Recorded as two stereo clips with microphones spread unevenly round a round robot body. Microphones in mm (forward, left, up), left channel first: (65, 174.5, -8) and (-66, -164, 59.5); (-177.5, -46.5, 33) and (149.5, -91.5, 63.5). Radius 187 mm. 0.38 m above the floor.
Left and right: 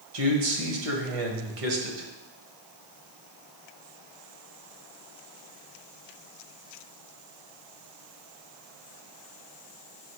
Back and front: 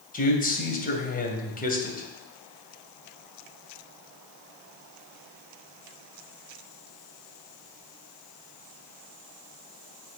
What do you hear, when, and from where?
0.1 s a man speaking: 125° right, 2 m